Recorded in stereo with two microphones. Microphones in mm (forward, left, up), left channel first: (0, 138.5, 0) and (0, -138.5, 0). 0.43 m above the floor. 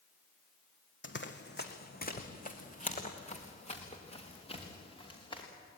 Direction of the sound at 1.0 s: 45° left (ahead or behind).